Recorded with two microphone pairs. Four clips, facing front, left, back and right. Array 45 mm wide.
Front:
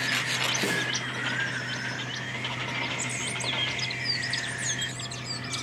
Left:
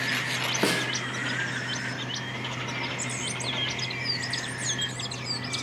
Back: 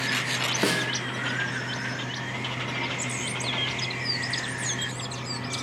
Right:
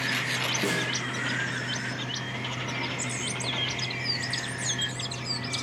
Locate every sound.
0.6 s a snare drum: 140° left, 1.3 m